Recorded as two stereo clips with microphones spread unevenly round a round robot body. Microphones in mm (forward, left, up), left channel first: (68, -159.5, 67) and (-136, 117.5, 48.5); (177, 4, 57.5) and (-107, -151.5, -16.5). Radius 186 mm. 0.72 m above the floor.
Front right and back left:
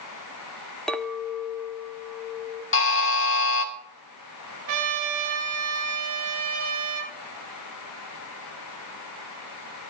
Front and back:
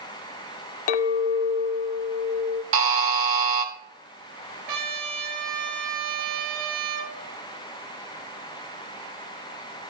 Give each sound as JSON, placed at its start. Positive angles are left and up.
{"t": 0.9, "sound": "a clink", "azimuth_deg": 35, "distance_m": 0.8}
{"t": 2.7, "sound": "a buzzer", "azimuth_deg": -110, "distance_m": 2.0}
{"t": 4.7, "sound": "a trumpet", "azimuth_deg": 165, "distance_m": 3.5}